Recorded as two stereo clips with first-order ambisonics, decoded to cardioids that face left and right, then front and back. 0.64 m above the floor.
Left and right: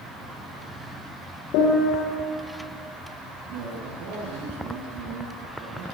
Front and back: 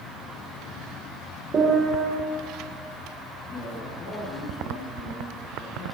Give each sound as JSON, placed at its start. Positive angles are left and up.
{"t": 1.5, "sound": "a piano", "azimuth_deg": 115, "distance_m": 9.5}
{"t": 3.5, "sound": "a man speaking", "azimuth_deg": -65, "distance_m": 9.5}